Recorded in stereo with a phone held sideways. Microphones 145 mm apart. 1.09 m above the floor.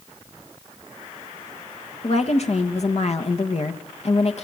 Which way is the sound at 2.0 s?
55° left (ahead or behind).